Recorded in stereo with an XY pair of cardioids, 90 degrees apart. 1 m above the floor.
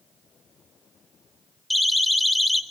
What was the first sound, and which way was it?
A siren, 5° right.